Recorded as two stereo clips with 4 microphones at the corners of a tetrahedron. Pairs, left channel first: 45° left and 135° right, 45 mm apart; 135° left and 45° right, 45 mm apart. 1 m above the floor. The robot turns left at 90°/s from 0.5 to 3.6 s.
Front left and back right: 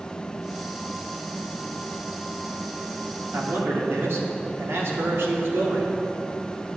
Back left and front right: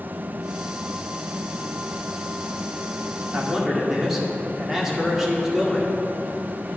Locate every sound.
3.3 s a man speaking: 100° right, 2.5 m; by 5.9 s 125° right, 2.5 m